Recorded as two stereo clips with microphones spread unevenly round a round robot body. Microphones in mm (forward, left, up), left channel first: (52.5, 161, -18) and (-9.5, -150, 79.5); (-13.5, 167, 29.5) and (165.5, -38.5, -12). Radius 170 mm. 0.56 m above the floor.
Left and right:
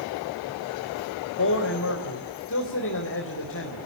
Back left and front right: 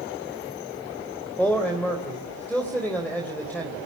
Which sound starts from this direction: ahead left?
A man speaking, at 1.4 s.